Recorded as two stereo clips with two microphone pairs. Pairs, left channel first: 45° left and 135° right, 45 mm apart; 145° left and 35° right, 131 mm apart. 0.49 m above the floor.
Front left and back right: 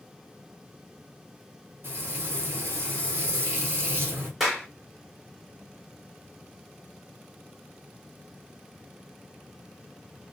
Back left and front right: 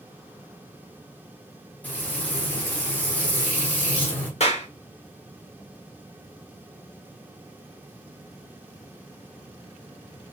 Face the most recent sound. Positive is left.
turn(degrees=145)